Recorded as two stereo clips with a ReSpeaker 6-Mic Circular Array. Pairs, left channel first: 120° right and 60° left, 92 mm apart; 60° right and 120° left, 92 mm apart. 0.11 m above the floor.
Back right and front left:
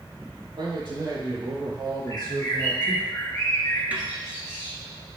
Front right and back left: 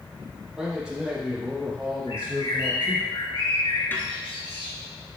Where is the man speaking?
40° left, 4 m; by 3.1 s 50° left, 2.0 m.